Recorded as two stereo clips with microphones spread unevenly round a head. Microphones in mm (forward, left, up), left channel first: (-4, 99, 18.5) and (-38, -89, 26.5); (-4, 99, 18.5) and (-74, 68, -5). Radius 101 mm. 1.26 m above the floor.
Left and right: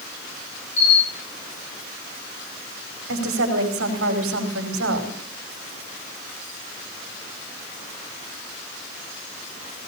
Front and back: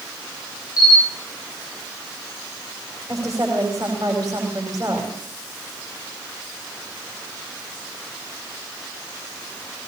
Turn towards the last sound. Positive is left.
turn(degrees=-85)